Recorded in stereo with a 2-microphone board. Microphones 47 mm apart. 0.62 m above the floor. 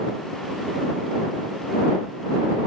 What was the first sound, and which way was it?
Only background noise.